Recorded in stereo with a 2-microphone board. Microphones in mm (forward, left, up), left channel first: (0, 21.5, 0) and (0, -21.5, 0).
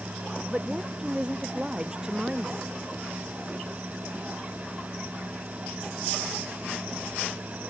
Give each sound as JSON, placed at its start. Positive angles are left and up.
{"t": 0.5, "sound": "a woman speaking", "side_deg": -20}